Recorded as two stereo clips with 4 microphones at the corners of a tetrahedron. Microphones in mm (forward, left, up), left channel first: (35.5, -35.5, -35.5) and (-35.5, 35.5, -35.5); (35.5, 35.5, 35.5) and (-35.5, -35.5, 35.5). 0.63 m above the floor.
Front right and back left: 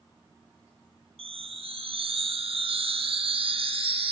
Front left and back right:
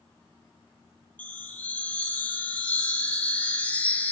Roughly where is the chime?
Behind left.